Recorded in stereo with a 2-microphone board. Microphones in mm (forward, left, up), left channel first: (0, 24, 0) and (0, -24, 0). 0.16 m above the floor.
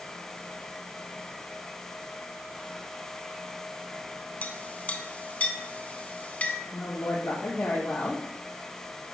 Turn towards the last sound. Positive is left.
turn(degrees=60)  # may be behind; listen again after turning